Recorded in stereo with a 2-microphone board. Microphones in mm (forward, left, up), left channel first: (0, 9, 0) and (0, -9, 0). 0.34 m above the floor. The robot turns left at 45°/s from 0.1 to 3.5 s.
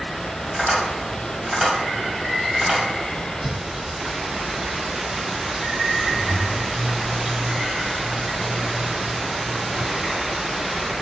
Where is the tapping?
15° right (ahead or behind), 2 m; by 2.8 s 45° right (ahead or behind), 2 m.